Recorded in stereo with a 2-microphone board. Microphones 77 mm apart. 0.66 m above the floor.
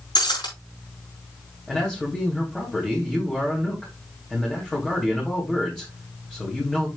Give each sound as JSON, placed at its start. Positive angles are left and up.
{"t": 0.1, "sound": "breaking glass", "side_deg": 75, "distance_m": 5.5}
{"t": 1.7, "sound": "a man speaking", "side_deg": 5, "distance_m": 3.5}